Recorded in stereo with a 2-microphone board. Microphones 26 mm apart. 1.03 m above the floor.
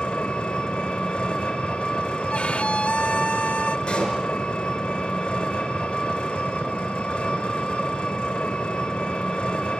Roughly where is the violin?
Left.